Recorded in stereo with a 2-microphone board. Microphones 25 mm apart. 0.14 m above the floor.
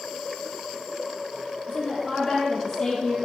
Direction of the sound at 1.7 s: 10° left (ahead or behind).